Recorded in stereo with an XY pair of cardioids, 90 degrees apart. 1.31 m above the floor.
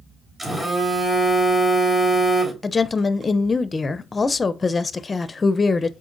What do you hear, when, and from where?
0.4 s a phone buzzing: 30° right, 3.5 m
2.6 s a woman speaking: 30° left, 0.5 m